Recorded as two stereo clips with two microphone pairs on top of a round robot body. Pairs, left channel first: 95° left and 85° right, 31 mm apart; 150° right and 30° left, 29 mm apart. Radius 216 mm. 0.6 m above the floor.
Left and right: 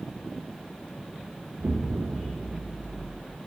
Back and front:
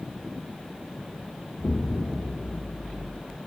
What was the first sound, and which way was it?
An explosion, 110° right.